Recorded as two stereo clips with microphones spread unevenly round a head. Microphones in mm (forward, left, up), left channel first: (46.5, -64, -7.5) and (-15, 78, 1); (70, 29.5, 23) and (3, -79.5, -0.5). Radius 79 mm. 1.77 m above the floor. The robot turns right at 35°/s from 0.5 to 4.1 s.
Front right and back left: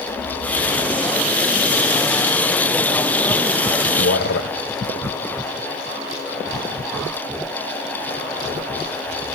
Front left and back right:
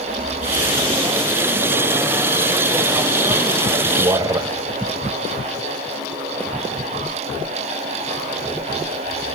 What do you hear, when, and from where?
3.8 s a man speaking: 65° right, 1.3 m; by 4.5 s 60° right, 1.3 m